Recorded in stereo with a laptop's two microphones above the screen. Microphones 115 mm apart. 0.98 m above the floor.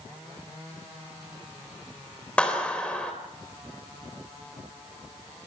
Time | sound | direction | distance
2.4 | a clap | 10° left (ahead or behind) | 3.5 m